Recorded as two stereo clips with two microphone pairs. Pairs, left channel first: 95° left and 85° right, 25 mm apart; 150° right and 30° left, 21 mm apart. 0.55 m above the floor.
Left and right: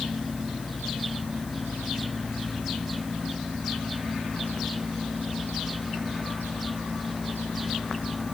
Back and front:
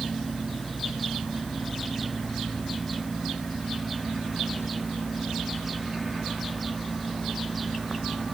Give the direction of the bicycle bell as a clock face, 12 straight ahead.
No bicycle bell in this recording.